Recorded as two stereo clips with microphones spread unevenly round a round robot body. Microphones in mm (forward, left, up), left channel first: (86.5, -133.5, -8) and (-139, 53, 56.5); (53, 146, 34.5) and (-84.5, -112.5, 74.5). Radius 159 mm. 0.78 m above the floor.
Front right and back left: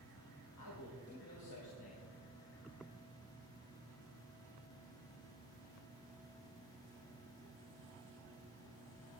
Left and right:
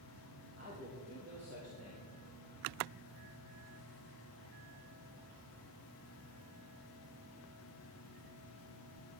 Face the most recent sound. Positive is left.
turn(degrees=-60)